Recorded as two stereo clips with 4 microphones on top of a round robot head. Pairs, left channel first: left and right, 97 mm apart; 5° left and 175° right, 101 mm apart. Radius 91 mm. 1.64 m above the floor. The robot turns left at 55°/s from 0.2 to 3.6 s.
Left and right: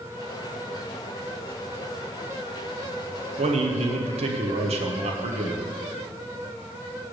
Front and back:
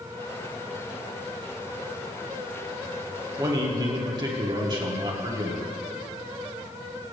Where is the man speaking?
105° right, 1.0 m; by 5.6 s 115° right, 1.0 m.